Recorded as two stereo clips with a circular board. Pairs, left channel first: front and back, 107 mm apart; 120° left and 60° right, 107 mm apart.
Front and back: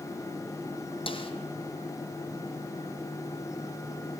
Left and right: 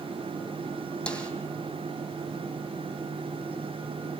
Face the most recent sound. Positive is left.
turn(degrees=40)